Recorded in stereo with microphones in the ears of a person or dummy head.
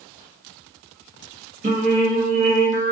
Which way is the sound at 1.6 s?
40° right (ahead or behind).